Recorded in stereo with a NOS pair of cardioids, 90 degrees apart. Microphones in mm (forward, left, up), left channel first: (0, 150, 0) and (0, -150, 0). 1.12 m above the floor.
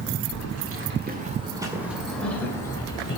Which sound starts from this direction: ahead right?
Keys jangling, at 0.3 s.